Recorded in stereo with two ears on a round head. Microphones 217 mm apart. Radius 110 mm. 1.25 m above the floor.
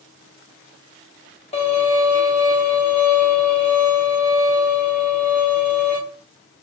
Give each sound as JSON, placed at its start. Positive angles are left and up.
{"t": 1.5, "sound": "a violin", "side_deg": 25, "distance_m": 1.0}